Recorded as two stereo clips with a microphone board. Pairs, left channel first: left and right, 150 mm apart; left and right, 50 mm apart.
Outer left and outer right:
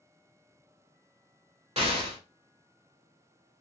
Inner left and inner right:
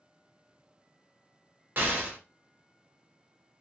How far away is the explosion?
About 1.0 m.